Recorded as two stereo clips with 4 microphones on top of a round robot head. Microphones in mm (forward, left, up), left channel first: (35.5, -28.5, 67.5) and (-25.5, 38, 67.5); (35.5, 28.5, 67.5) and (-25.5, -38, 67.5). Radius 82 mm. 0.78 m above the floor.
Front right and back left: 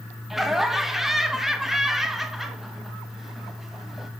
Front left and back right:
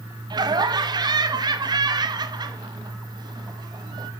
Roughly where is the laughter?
Behind right.